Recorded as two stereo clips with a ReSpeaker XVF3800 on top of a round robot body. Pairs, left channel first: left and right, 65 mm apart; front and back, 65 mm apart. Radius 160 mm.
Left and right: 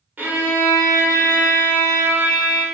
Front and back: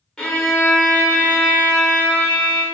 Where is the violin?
70° right, 1.1 m.